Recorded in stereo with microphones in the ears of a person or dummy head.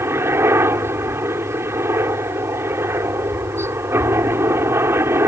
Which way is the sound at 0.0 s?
10° right (ahead or behind).